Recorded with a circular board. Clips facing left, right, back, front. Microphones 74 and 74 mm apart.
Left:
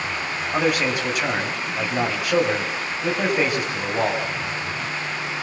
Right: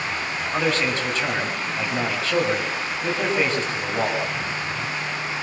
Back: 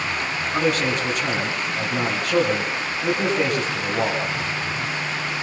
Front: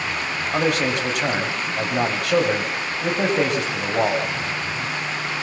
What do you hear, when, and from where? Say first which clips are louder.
0.5 s a man speaking: left 2 dB, front 1 dB; 15° left, 7.5 m